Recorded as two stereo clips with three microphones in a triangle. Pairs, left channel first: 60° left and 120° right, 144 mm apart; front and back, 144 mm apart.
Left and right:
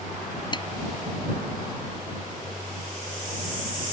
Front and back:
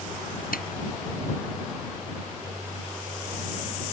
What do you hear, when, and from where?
0.5 s a snare drum: straight ahead